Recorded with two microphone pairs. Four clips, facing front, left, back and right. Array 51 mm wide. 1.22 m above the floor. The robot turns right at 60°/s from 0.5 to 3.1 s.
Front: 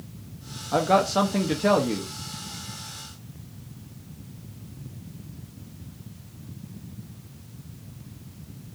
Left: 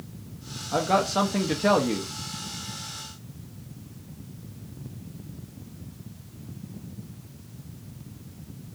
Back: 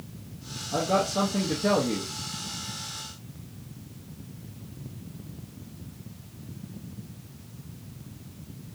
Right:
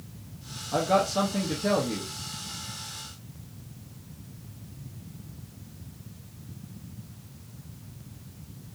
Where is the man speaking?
10° left, 0.6 m; by 2.1 s 95° left, 0.6 m.